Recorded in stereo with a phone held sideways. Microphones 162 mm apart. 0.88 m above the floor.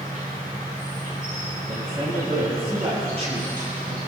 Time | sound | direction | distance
0.0 | an insect | 60° right (ahead or behind) | 6.5 m
1.7 | a man speaking | 40° right (ahead or behind) | 8 m